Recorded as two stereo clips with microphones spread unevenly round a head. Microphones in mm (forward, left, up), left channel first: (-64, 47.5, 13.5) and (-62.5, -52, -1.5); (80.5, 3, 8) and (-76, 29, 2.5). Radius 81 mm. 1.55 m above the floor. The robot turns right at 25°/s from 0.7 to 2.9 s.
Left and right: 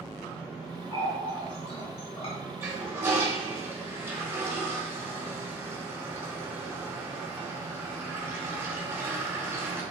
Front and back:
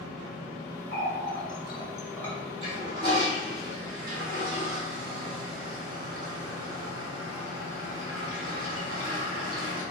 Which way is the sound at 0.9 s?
35° left.